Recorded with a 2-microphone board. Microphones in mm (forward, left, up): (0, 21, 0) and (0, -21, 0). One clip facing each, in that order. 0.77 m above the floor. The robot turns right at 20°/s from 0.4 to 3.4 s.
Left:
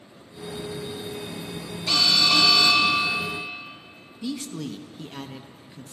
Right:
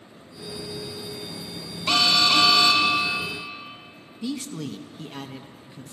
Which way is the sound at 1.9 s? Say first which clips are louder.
Right 1 dB; 30° right (ahead or behind).